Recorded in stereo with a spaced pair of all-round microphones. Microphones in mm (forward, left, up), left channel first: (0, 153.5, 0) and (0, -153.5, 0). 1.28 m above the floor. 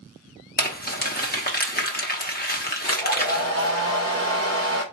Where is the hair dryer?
50° left (ahead or behind), 1.2 m.